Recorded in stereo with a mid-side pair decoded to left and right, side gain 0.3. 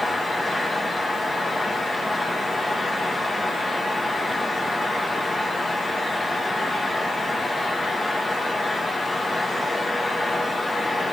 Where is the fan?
45° left, 2.5 m.